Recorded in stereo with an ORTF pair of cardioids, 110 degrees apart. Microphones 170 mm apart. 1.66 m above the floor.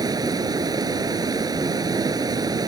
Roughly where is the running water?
Ahead.